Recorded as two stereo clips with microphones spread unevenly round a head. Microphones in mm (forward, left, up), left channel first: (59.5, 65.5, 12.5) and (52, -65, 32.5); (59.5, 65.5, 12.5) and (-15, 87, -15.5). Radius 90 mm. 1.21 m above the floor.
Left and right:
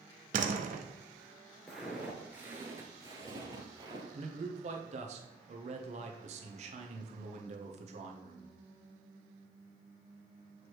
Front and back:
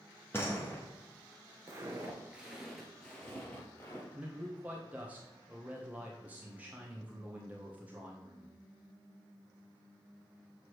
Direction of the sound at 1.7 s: 155° right.